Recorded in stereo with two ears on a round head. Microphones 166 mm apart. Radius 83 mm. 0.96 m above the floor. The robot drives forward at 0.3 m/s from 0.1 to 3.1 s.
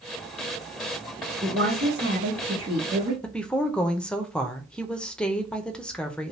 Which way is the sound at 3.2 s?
5° left (ahead or behind).